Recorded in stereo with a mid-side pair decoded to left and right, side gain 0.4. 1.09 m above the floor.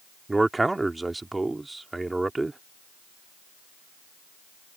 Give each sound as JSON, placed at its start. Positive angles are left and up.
{"t": 0.3, "sound": "a man speaking", "azimuth_deg": -20}